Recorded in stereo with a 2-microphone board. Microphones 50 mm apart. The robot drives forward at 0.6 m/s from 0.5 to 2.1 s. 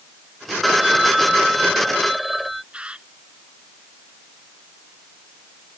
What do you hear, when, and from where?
0.6 s a phone ringing: centre (ahead or behind)
2.7 s a bird: 20° right (ahead or behind)